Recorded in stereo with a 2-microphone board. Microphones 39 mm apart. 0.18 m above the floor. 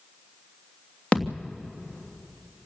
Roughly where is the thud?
Left.